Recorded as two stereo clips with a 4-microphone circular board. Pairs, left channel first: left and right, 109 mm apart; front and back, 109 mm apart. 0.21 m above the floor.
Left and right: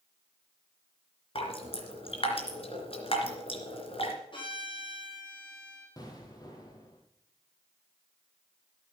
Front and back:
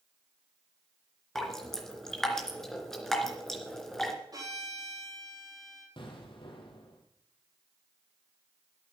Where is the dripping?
85° left, 3 m.